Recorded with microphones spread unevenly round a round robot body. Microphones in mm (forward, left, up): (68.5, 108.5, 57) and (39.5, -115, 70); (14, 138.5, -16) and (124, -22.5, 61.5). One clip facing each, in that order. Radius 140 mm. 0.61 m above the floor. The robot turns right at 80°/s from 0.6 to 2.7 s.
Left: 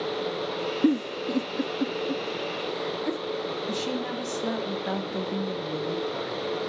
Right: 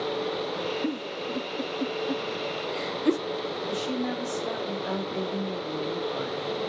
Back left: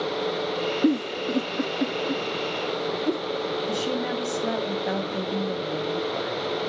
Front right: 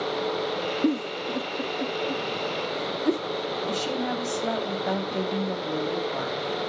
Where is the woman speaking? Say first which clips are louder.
Right 3 dB, back left 1 dB; 50° left, 5.5 m.